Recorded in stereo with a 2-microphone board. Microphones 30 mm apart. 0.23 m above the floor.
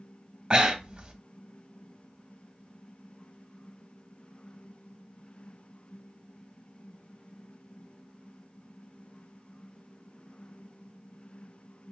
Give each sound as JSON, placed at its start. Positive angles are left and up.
{"t": 0.5, "sound": "breathing", "side_deg": -30, "distance_m": 0.6}